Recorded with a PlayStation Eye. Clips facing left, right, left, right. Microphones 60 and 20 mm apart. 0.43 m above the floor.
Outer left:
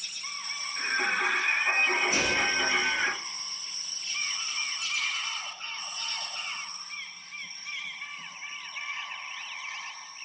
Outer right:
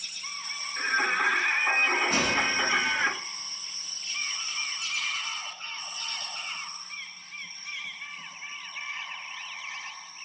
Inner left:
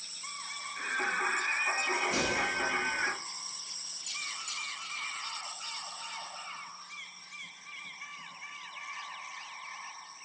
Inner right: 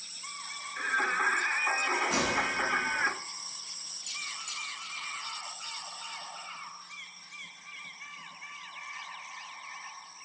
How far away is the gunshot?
About 2.5 m.